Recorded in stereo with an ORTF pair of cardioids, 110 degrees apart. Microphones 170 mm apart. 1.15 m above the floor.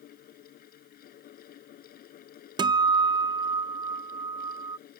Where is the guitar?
25° right.